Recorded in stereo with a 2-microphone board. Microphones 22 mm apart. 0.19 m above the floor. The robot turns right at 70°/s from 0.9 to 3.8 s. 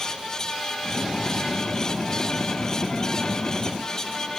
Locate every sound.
Only background noise.